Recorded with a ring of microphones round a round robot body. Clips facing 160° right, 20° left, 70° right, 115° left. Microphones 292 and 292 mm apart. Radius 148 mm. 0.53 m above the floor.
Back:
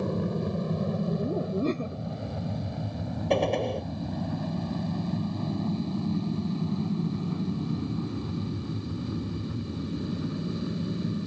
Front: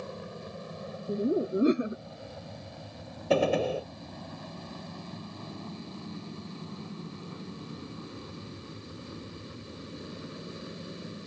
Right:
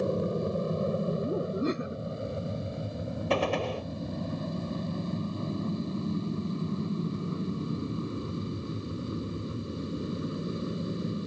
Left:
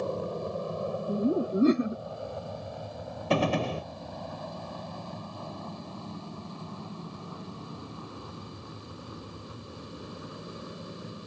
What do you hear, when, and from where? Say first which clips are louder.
0.0 s an aircraft: back 12 dB, right 4 dB; 135° right
1.1 s laughter: front 2 dB, left 4 dB; 100° left
3.3 s a gunshot: front 1 dB, left 2 dB; 110° left